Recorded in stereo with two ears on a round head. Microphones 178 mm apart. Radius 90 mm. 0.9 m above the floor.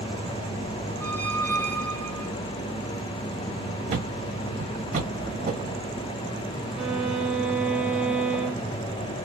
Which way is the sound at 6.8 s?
5° right (ahead or behind).